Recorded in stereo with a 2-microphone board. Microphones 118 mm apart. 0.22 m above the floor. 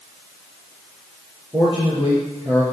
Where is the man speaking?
25° right (ahead or behind), 4.5 m.